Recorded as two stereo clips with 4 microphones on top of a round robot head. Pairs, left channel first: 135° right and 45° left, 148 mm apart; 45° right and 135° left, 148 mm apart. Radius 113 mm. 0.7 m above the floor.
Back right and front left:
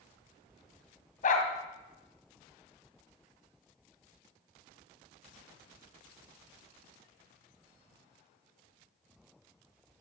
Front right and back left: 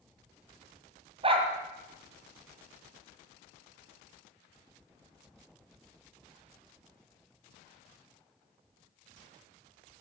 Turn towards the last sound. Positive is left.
turn(degrees=-170)